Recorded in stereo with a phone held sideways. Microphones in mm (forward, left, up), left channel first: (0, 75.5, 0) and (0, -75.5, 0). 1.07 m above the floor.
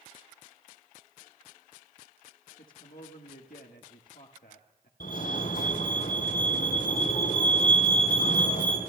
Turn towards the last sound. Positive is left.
turn(degrees=80)